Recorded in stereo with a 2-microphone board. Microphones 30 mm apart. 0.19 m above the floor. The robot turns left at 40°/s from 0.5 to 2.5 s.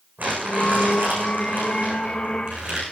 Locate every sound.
0.2 s crumpling: 75° right, 7.5 m; by 2.8 s 155° right, 7.5 m